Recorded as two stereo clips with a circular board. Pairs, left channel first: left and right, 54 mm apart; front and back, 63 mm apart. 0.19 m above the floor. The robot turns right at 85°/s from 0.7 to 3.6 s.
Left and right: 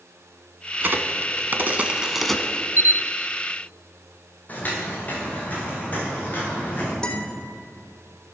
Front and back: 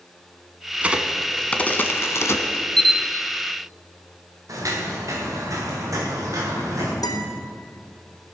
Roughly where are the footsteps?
Behind left.